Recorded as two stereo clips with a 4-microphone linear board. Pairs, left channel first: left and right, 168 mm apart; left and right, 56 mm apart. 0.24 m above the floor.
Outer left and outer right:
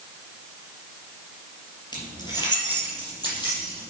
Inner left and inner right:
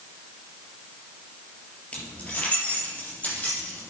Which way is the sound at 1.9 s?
25° left (ahead or behind).